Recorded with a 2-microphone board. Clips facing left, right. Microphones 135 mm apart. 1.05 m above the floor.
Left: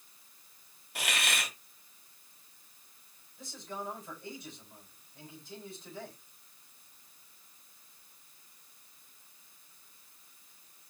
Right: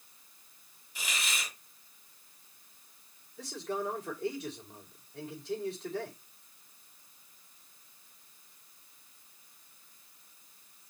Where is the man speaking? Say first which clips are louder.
Right 7 dB; 85° right, 5 m.